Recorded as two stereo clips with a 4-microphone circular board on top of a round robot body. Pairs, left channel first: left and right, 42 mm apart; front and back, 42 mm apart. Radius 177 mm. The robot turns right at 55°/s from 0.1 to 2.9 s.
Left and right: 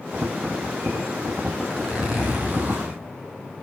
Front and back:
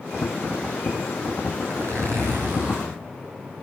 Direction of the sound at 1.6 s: 165° left.